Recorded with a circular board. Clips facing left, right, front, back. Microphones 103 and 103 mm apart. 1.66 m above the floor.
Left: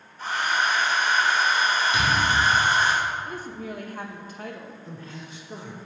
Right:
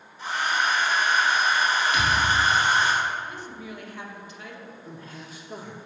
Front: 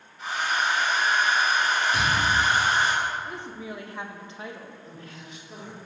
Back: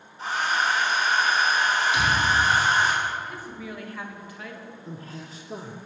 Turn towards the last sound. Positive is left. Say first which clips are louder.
# left 1 dB, back 4 dB
turn(degrees=-170)